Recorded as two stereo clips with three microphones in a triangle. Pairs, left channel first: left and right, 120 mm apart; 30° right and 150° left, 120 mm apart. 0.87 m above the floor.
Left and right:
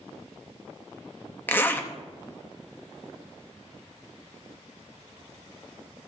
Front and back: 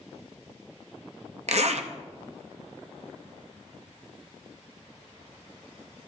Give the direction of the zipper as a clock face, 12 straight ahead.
7 o'clock.